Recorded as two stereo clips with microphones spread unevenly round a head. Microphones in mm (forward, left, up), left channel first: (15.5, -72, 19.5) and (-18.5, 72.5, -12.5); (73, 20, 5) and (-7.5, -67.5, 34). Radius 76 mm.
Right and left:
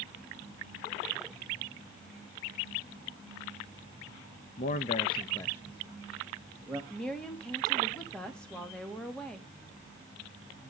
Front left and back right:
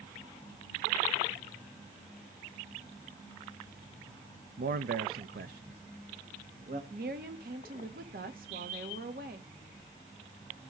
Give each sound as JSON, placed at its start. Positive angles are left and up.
{"t": 4.6, "sound": "a man speaking", "azimuth_deg": -115, "distance_m": 0.9}
{"t": 6.9, "sound": "a woman speaking", "azimuth_deg": -165, "distance_m": 2.0}